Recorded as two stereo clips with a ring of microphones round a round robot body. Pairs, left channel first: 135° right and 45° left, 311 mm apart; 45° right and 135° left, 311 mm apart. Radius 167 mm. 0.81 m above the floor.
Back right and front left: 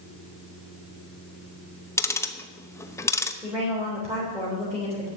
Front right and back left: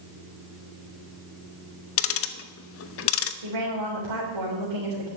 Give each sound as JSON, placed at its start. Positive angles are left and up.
{"t": 2.0, "sound": "ticking", "azimuth_deg": -55, "distance_m": 0.9}
{"t": 3.4, "sound": "a woman speaking", "azimuth_deg": 125, "distance_m": 4.0}